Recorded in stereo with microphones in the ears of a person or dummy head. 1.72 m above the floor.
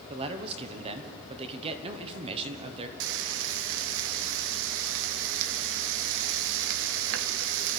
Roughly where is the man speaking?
Right.